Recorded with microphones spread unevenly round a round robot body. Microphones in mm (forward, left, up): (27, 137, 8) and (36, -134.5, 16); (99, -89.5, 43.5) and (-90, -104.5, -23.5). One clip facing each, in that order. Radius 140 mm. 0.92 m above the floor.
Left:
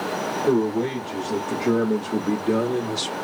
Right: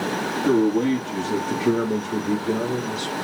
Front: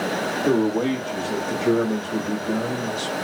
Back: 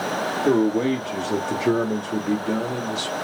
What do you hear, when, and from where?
0.5 s a man speaking: 105° right, 1.4 m; by 3.1 s 130° left, 1.3 m